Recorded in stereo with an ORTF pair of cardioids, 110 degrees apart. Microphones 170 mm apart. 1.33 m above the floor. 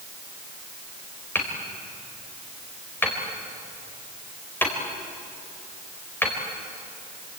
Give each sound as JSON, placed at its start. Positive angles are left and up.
{"t": 1.4, "sound": "hammering", "azimuth_deg": 10, "distance_m": 5.0}